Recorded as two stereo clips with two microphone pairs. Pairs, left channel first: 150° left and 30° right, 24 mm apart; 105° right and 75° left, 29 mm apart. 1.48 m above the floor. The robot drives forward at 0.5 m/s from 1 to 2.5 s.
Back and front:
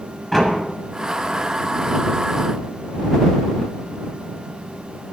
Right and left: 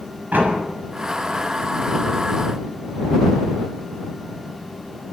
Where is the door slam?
70° left, 6.5 m.